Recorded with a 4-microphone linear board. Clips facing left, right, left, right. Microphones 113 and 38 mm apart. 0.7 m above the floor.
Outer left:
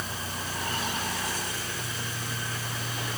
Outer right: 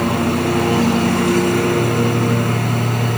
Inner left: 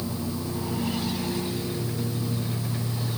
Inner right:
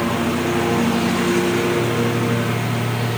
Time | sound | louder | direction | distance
0.0 | a lawn mower | outer right 20 dB, inner right 12 dB | 70° right (ahead or behind) | ?